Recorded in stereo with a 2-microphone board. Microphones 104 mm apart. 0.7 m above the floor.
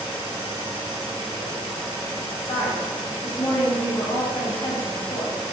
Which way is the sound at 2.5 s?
65° left (ahead or behind).